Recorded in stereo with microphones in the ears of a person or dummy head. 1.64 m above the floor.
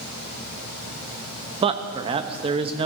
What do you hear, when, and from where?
1.6 s a man speaking: 30° right (ahead or behind), 0.7 m